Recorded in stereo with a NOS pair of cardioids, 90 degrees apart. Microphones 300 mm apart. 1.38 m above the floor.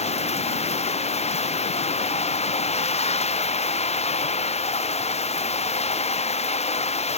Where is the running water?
20° left.